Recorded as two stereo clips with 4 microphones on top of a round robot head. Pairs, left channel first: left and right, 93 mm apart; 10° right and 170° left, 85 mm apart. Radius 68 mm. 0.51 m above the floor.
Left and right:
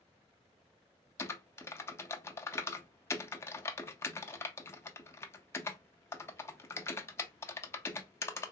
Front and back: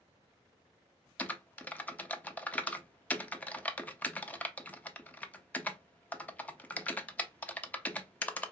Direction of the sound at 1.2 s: 50° left.